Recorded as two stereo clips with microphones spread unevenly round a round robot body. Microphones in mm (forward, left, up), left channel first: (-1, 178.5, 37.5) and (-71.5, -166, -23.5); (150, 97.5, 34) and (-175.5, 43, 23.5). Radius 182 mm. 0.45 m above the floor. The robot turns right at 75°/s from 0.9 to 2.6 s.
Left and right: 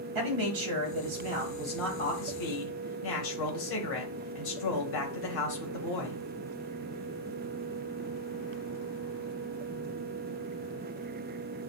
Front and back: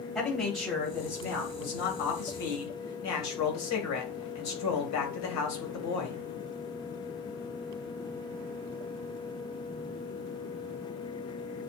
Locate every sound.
0.1 s a man speaking: 80° right, 2 m; by 6.2 s 45° left, 2 m